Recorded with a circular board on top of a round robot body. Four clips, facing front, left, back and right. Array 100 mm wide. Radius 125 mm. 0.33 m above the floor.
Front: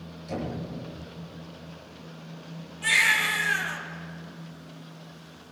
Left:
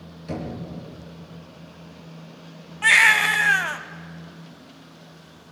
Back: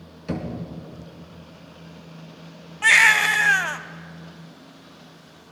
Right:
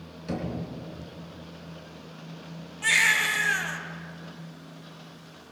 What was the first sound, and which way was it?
Knocking, 175° right.